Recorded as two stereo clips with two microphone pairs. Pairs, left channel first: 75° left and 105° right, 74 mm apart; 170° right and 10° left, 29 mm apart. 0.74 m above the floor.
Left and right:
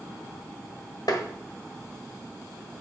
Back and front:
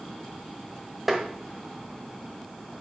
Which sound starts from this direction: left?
Tapping, at 1.1 s.